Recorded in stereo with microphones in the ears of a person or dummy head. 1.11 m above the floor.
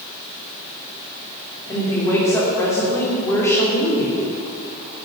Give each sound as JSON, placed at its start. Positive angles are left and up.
{"t": 1.7, "sound": "a woman speaking", "side_deg": 15, "distance_m": 3.5}